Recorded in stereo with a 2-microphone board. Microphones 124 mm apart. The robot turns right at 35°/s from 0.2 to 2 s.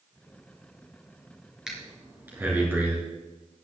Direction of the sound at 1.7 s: 5° right (ahead or behind).